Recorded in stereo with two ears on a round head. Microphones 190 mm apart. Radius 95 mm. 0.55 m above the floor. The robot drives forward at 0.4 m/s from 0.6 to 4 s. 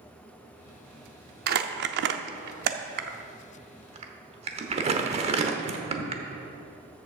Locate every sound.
1.5 s crumpling: 45° right (ahead or behind), 0.7 m; by 6.2 s 30° right (ahead or behind), 0.9 m